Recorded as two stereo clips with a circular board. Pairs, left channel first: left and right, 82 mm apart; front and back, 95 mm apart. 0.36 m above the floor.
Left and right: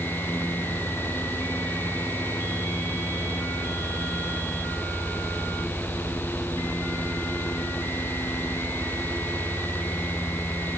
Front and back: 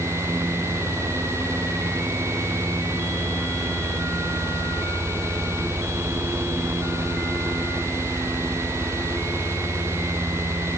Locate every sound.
Only background noise.